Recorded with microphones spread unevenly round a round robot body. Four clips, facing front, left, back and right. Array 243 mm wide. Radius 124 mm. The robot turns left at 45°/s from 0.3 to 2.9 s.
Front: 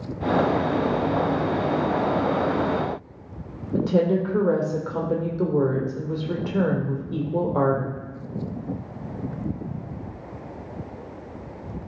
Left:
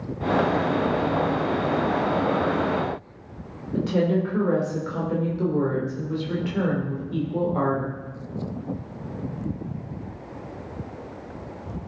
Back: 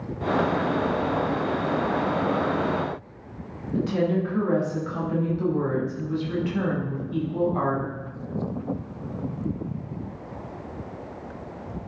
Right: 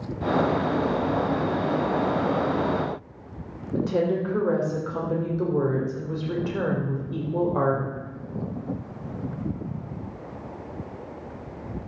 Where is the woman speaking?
10° right, 2.5 m.